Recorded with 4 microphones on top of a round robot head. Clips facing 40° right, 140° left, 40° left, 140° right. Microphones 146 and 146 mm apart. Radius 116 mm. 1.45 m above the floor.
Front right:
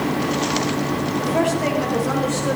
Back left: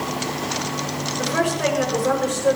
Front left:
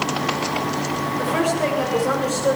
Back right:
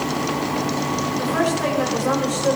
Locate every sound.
1.2 s a woman speaking: 120° left, 8 m; by 2.6 s 125° left, 8 m